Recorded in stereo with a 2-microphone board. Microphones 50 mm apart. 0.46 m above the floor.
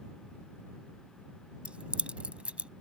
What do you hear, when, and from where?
1.6 s keys jangling: 20° right (ahead or behind)